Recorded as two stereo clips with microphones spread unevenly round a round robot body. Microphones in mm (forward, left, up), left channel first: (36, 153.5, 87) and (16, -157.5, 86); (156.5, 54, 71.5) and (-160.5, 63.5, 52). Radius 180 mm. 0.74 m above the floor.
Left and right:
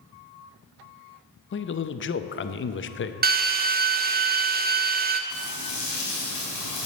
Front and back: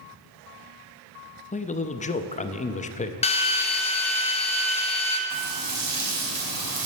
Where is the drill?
65° right, 0.9 m.